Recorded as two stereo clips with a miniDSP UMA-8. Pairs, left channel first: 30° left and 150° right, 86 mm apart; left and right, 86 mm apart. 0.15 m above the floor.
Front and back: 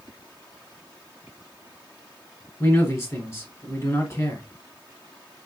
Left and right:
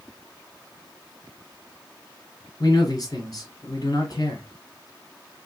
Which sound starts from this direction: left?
A man speaking, at 2.6 s.